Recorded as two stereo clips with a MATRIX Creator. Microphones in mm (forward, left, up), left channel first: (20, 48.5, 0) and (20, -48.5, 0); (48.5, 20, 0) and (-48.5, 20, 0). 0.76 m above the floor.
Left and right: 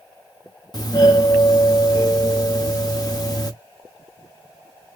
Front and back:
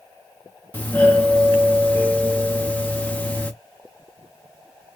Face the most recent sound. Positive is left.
turn(degrees=65)